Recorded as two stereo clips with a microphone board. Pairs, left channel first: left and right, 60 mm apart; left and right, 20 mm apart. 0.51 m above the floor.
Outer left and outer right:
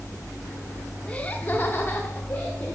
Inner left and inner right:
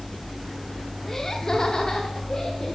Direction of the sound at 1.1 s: 20° left (ahead or behind).